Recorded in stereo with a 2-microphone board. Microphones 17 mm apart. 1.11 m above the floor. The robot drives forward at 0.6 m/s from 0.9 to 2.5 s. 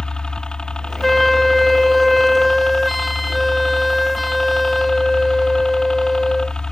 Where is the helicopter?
55° left (ahead or behind).